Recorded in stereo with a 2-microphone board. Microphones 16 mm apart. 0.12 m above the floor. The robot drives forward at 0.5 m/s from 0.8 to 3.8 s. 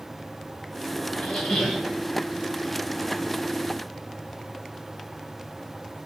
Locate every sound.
1.1 s a squeak: 80° left, 3.5 m; by 1.9 s 75° left (ahead or behind), 3.5 m